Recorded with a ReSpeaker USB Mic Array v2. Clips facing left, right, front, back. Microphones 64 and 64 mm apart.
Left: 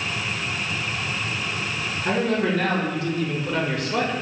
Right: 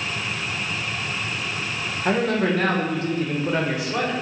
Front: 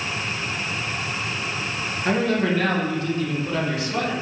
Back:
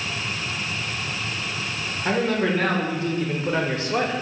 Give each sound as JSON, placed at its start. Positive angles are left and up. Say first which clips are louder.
{"t": 2.0, "sound": "a man speaking", "louder": "right 1 dB, front 1 dB", "azimuth_deg": -105, "distance_m": 1.4}